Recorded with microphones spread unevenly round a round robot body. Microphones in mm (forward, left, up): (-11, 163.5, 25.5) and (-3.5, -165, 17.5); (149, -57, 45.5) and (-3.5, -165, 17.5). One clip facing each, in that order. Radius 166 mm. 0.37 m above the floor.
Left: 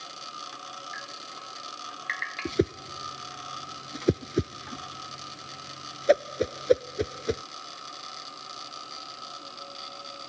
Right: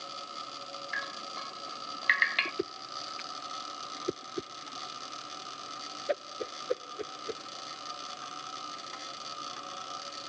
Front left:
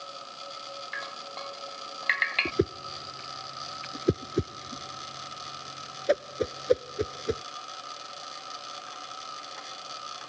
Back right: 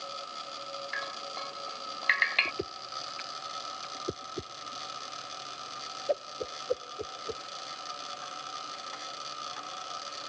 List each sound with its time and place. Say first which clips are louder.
0.9 s dripping: right 1 dB, even; 55° right
2.5 s a whoosh: left 10 dB, front left 13 dB; 70° left